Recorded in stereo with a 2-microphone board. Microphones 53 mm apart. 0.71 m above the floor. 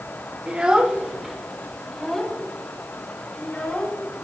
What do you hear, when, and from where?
0.5 s a child speaking: 20° right (ahead or behind), 1.6 m; by 4.2 s 15° left (ahead or behind), 4.5 m